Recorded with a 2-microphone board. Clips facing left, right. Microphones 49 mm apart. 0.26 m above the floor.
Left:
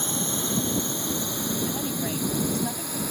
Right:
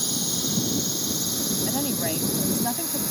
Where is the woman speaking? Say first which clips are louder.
Right 2 dB; 25° right (ahead or behind).